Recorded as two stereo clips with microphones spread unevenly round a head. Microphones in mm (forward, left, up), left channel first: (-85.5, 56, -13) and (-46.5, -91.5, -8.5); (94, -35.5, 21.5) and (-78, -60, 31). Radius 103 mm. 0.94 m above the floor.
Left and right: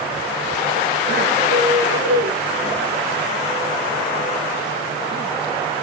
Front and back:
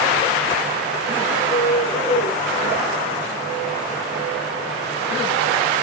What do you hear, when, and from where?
1.5 s a bird: 50° right, 4.5 m